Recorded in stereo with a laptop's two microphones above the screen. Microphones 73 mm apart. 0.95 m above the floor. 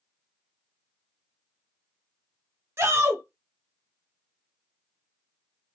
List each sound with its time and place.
2.8 s a shout: 35° right (ahead or behind), 0.7 m